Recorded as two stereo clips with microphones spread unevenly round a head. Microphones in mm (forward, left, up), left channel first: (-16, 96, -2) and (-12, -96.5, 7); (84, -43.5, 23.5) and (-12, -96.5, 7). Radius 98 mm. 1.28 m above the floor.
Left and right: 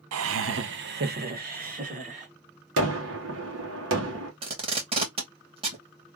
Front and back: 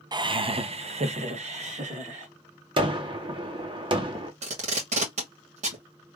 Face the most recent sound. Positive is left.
turn(degrees=-150)